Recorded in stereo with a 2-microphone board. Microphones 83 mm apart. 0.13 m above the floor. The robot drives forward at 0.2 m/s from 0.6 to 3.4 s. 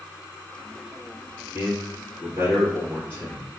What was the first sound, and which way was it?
A man speaking, 20° right (ahead or behind).